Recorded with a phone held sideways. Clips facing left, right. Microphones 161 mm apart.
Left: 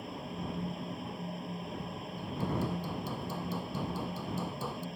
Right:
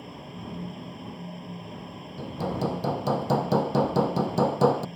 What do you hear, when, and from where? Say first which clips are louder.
0.0 s a fan: even; centre (ahead or behind)
2.2 s hammering: right 6 dB; 75° right (ahead or behind)